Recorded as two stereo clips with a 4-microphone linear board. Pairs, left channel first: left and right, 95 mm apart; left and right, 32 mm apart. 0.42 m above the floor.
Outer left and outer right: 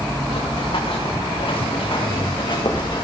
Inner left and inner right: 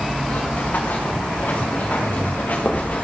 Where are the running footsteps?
70° left (ahead or behind), 3.5 m; by 3.0 s 50° left (ahead or behind), 2.5 m.